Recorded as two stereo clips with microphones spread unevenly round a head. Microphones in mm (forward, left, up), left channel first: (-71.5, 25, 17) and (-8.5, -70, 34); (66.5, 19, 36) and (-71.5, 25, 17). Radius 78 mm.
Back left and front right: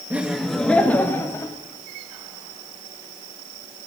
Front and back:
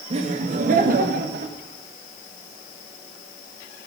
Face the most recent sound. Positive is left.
turn(degrees=-170)